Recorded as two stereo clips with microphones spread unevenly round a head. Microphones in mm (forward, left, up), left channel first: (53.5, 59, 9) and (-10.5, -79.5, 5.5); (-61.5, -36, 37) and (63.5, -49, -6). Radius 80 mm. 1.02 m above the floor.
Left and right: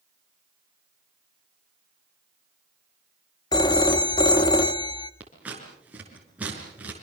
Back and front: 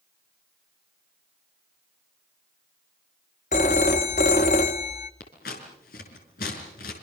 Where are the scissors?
165° left, 5 m.